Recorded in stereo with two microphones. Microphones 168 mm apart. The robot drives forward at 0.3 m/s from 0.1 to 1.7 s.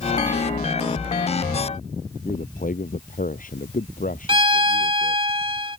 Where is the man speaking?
55° left (ahead or behind).